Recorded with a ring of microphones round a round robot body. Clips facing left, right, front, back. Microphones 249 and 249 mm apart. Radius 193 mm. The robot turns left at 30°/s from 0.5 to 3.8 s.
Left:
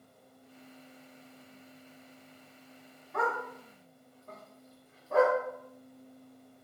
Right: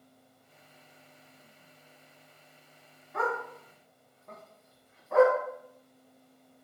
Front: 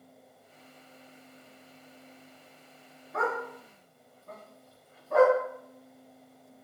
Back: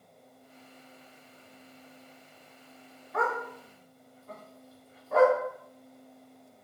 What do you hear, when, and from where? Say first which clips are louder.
3.1 s a dog barking: right 1 dB, even; 60° left, 1.5 m; by 5.3 s 40° left, 1.5 m